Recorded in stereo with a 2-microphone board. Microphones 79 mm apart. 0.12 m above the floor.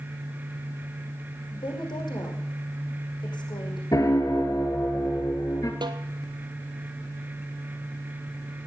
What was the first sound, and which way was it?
A woman speaking, 70° left (ahead or behind).